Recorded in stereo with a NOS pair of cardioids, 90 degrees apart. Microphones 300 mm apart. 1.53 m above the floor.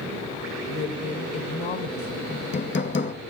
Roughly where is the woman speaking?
Ahead left.